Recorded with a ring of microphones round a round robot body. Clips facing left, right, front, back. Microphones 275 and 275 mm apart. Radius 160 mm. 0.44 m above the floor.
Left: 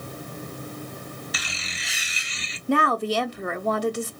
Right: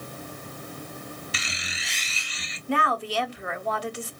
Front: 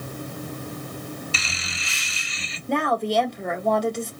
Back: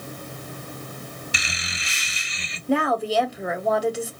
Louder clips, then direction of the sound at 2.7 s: Left 5 dB, back 1 dB; 95° left.